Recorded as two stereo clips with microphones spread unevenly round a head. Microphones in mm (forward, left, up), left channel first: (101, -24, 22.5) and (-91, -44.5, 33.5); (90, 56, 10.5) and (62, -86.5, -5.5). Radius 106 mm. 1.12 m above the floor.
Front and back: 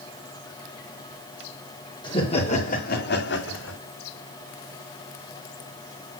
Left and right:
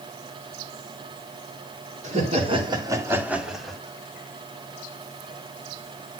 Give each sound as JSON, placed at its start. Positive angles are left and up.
{"t": 2.0, "sound": "laughter", "azimuth_deg": -60, "distance_m": 3.0}